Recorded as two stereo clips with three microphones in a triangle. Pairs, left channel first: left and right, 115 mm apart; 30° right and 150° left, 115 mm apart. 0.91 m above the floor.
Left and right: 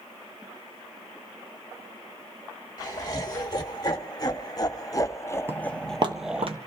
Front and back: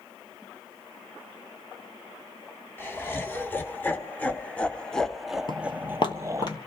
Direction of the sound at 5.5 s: 30° right.